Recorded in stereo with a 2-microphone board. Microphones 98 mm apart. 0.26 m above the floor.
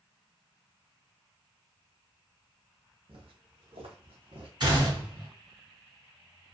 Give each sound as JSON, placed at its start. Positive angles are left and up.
{"t": 3.1, "sound": "footsteps", "side_deg": -65, "distance_m": 1.1}
{"t": 4.6, "sound": "a gunshot", "side_deg": -45, "distance_m": 1.6}